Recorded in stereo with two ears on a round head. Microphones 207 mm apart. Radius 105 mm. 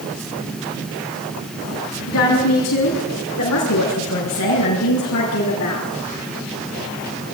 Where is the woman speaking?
75° left (ahead or behind), 7 m; by 5.9 s 80° left, 7.5 m.